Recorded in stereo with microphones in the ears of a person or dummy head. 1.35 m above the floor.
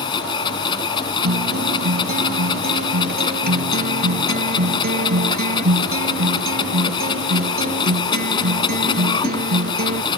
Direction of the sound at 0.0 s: 25° left (ahead or behind).